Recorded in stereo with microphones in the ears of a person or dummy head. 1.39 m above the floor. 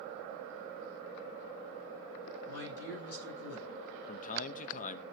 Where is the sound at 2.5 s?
80° left, 10 m.